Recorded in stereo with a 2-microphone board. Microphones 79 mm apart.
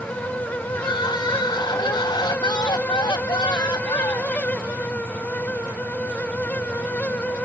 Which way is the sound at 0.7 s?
70° left (ahead or behind).